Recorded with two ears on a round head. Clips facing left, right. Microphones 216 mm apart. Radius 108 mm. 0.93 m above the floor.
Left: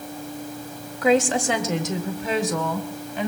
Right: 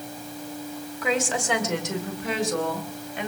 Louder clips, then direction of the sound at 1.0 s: Left 7 dB; 65° left (ahead or behind).